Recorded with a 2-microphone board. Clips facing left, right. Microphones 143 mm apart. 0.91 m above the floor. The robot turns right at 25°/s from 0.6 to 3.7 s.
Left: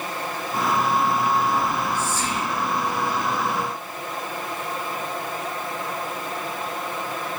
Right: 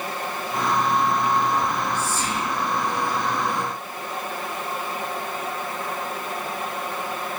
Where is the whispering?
50° right (ahead or behind), 1.5 m; by 2.5 s 30° right (ahead or behind), 1.5 m.